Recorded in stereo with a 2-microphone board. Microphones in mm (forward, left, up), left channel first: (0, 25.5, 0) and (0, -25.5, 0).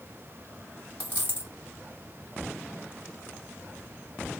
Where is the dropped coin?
35° right (ahead or behind), 2 m.